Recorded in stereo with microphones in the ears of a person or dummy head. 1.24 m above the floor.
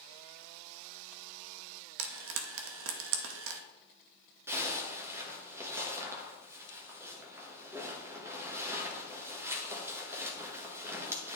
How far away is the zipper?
About 1.3 m.